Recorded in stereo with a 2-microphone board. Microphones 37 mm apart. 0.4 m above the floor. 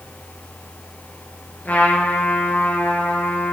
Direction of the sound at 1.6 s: 50° left (ahead or behind).